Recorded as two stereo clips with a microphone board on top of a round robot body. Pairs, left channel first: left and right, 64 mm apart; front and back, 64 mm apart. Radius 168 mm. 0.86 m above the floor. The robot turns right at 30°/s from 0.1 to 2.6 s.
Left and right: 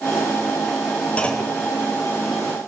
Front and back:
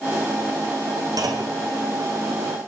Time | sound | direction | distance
1.2 | a clunk | 160° left | 1.6 m